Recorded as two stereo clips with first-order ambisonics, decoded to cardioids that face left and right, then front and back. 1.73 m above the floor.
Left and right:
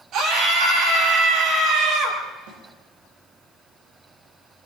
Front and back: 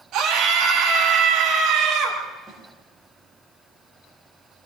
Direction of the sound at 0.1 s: 135° right.